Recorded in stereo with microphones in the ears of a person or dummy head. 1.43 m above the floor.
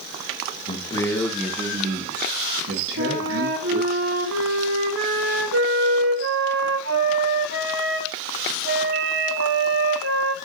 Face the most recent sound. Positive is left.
turn(degrees=-60)  # may be behind; listen again after turning